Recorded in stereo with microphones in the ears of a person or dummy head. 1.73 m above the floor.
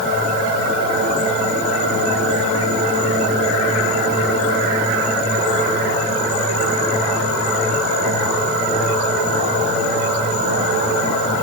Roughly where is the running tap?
No running tap in this recording.